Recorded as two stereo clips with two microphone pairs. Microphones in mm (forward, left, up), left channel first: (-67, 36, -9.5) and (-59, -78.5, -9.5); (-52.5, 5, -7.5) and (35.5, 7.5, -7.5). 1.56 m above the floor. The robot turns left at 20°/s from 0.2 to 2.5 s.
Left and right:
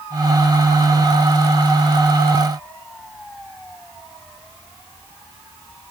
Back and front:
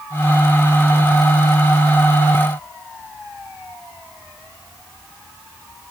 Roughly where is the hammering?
No hammering in this recording.